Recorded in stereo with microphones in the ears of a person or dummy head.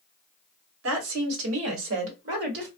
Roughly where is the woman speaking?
Right.